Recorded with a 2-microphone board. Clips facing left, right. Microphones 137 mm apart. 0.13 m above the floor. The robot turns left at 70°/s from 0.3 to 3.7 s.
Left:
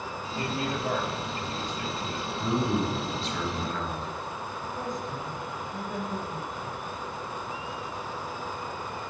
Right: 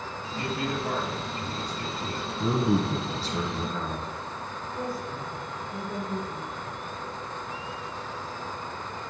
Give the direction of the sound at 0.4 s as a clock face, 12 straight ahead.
11 o'clock.